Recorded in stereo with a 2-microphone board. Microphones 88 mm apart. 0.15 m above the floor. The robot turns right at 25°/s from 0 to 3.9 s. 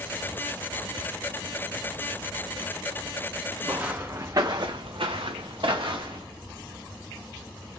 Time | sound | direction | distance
3.6 | footsteps | 25° right (ahead or behind) | 0.8 m